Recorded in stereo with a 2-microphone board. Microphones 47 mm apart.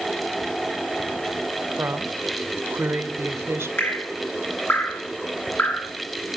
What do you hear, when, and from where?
1.8 s a woman speaking: 70° right (ahead or behind), 1.8 m
3.8 s dripping: 55° left (ahead or behind), 7.5 m